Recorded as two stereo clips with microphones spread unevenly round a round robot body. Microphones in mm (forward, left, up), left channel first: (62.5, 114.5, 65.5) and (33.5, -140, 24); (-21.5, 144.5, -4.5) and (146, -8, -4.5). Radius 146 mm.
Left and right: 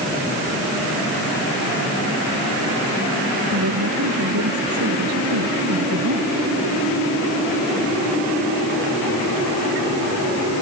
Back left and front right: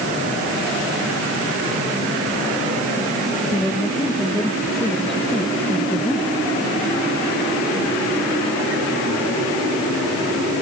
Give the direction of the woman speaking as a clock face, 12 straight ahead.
4 o'clock.